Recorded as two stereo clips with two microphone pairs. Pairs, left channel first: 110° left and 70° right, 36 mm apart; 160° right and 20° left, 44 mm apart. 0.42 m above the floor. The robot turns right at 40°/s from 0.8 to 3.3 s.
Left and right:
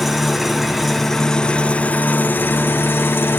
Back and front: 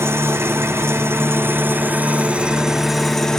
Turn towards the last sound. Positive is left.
turn(degrees=120)